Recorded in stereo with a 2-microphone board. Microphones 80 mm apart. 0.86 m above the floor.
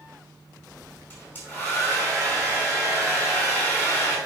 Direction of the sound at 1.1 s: 20° left (ahead or behind).